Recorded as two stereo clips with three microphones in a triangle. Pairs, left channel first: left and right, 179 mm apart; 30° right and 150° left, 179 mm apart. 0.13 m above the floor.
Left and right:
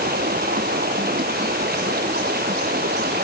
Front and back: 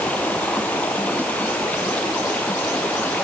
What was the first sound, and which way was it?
Running water, 110° right.